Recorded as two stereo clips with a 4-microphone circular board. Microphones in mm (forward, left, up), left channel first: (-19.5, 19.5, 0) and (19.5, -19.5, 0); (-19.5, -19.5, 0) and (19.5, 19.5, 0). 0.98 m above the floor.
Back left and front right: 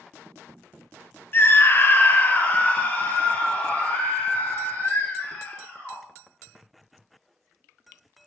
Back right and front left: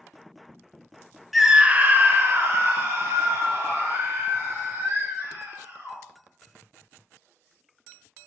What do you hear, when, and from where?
1.3 s a scream: 130° left, 0.6 m; by 6.0 s 75° left, 5 m